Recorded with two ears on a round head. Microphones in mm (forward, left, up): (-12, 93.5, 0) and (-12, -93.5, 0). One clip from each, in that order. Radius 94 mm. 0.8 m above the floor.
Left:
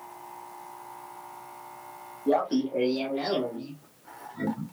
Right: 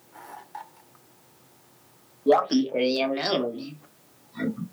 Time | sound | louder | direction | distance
2.3 | laughter | right 5 dB | 50° right (ahead or behind) | 1.1 m